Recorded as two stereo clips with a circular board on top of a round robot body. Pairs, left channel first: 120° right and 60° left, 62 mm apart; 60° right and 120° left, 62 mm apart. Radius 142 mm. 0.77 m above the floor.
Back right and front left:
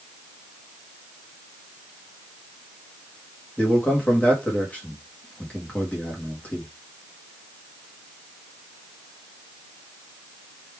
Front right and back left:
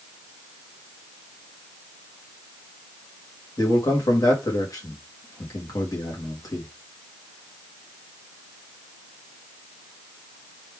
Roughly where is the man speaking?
Ahead right.